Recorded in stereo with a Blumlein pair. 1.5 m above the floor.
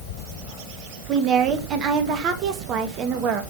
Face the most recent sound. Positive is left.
turn(degrees=-30)